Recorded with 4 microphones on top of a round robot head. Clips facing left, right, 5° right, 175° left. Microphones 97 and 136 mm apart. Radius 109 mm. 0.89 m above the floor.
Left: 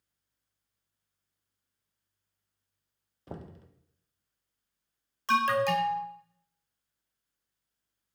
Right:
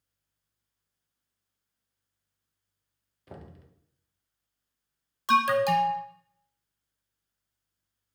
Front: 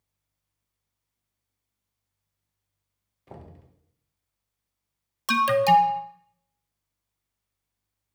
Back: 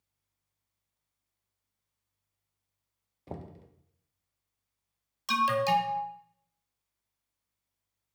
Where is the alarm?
15° right, 0.7 m.